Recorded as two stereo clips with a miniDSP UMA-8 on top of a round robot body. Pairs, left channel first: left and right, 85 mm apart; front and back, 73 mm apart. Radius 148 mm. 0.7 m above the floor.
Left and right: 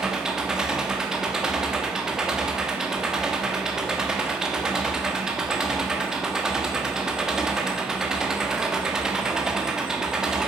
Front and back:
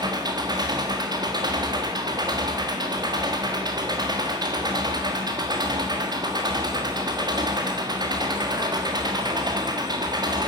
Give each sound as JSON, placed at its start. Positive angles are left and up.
{"t": 0.0, "sound": "an engine running", "azimuth_deg": -175, "distance_m": 1.5}